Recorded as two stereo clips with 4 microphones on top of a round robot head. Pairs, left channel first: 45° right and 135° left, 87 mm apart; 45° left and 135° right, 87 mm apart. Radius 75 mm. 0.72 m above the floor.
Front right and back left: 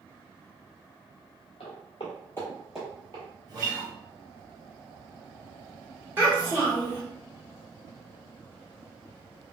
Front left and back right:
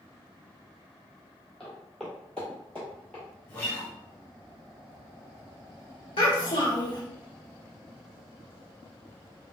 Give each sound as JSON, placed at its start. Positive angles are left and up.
{"t": 1.6, "sound": "footsteps", "azimuth_deg": -35, "distance_m": 1.0}
{"t": 3.5, "sound": "a guitar", "azimuth_deg": 110, "distance_m": 1.7}
{"t": 6.2, "sound": "a child speaking", "azimuth_deg": 65, "distance_m": 1.1}